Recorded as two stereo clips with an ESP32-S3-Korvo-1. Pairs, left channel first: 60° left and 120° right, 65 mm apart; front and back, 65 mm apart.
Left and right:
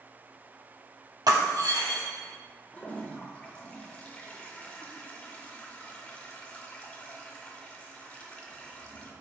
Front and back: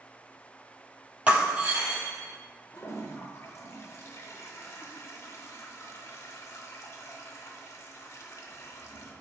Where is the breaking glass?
110° right, 1.7 m.